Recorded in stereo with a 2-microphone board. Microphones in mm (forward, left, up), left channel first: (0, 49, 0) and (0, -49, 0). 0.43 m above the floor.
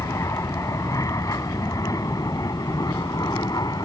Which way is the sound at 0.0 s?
35° left (ahead or behind).